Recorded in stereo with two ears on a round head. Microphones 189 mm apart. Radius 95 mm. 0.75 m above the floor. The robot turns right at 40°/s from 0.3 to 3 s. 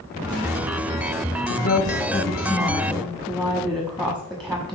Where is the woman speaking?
120° left, 1.0 m; by 4.8 s straight behind, 1.0 m.